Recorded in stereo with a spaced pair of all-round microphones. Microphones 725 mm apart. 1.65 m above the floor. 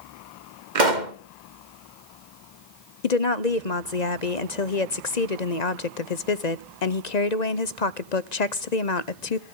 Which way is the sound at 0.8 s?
85° right.